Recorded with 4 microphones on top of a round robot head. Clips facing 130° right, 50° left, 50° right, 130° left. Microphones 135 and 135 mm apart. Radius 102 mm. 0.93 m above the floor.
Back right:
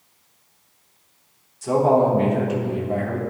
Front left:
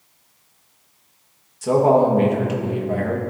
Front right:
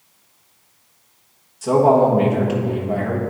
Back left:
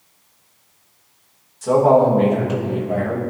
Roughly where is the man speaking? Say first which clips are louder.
Front left 2 dB, even; ahead left.